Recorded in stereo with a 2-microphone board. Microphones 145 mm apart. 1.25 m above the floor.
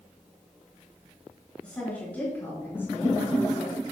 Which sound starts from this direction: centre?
A woman speaking, at 1.6 s.